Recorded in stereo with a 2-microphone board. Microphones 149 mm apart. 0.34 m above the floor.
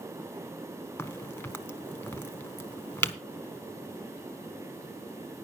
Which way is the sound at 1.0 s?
15° left (ahead or behind).